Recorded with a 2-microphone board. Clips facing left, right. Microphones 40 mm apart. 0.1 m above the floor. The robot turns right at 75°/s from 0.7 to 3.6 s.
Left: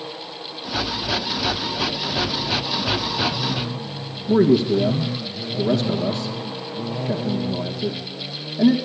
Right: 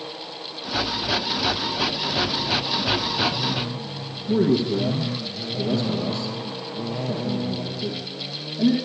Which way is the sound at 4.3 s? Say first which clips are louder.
Left 4 dB; 40° left (ahead or behind).